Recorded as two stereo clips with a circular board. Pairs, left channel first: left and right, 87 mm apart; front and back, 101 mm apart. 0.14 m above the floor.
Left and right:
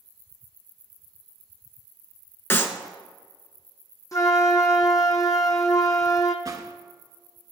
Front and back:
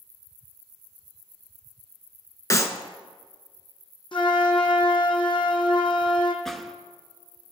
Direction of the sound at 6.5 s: 85° right.